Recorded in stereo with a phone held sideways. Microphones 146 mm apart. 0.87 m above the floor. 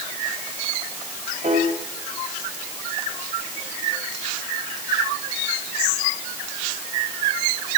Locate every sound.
1.4 s a piano: 55° right (ahead or behind), 3.5 m